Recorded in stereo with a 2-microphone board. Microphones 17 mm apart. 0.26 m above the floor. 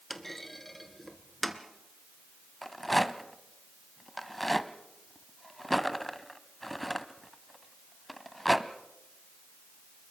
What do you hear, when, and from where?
0.1 s a clunk: 10° left (ahead or behind), 1.3 m
2.6 s a rattle: 5° left (ahead or behind), 0.9 m